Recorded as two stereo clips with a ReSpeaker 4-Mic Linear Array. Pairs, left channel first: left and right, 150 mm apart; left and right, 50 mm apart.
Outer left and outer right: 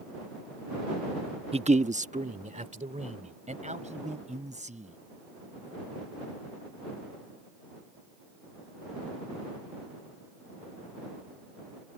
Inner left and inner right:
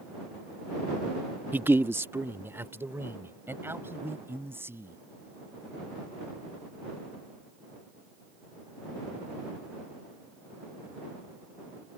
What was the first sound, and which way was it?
A man speaking, 40° right (ahead or behind).